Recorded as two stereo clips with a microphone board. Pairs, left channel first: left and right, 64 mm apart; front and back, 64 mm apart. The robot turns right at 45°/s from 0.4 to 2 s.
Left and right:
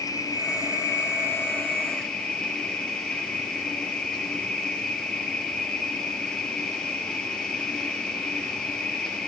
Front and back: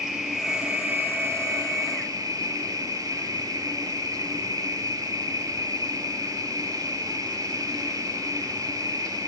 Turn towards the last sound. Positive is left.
turn(degrees=165)